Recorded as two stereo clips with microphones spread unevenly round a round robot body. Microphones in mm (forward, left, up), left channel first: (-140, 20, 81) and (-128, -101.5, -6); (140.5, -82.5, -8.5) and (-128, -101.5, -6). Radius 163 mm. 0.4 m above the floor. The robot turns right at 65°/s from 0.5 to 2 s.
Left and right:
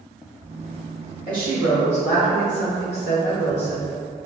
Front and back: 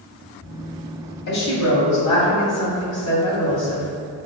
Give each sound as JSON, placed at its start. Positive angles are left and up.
{"t": 1.3, "sound": "a woman speaking", "azimuth_deg": 30, "distance_m": 1.9}